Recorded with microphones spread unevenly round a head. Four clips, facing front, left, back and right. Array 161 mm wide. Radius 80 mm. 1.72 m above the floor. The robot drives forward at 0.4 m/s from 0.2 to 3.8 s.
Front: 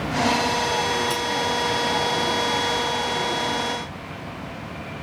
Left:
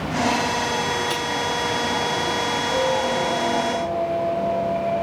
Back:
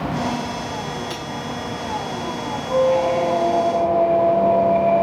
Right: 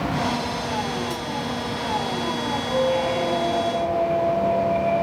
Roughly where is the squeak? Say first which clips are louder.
Right 1 dB, back 8 dB; behind.